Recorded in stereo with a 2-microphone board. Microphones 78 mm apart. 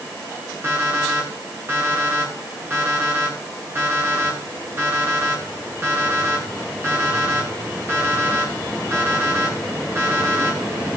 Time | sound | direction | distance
0.6 | an alarm clock | 30° right (ahead or behind) | 8 m